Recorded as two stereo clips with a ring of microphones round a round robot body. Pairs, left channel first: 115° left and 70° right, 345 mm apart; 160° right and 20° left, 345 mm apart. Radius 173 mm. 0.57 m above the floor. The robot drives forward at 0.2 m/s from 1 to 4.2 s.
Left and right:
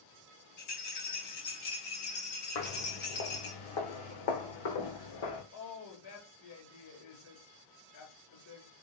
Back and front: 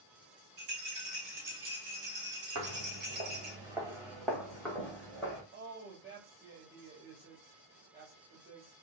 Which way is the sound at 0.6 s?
75° left.